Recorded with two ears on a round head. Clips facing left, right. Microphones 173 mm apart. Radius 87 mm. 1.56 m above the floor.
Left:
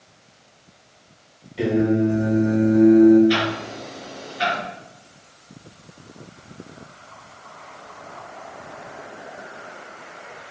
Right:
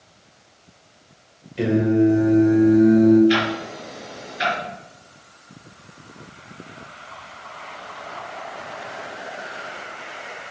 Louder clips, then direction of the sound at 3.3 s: Right 1 dB; 10° right (ahead or behind).